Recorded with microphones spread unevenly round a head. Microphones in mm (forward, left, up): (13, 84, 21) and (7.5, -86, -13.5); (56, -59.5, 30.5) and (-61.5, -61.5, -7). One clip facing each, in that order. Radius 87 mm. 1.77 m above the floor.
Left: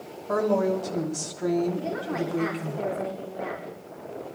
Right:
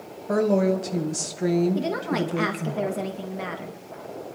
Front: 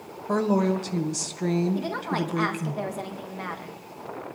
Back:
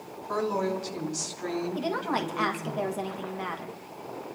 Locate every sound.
0.3 s a woman speaking: 25° right, 1.8 m
1.8 s a woman speaking: 90° right, 1.7 m